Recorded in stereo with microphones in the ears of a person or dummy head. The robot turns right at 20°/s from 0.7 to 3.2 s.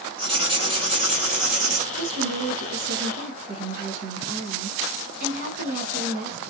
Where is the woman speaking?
70° right (ahead or behind), 1.8 m; by 6.4 s 45° right (ahead or behind), 1.8 m.